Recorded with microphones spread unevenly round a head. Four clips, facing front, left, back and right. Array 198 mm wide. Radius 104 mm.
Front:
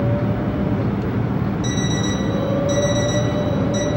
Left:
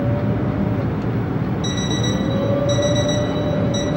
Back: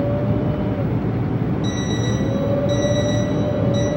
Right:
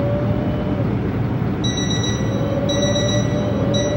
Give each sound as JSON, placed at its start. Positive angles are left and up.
{"t": 1.6, "sound": "an alarm clock", "azimuth_deg": 20, "distance_m": 1.4}